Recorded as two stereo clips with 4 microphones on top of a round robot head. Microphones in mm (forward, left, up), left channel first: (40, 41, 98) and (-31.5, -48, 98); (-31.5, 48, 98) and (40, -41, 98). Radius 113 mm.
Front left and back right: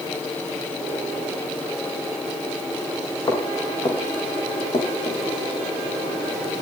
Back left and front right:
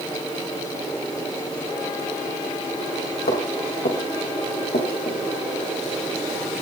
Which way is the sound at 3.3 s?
105° left.